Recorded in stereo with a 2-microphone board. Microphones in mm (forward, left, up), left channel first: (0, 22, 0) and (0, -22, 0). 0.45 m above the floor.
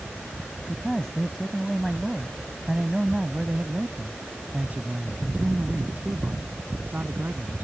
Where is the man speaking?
10° left (ahead or behind); by 7.7 s 50° right (ahead or behind).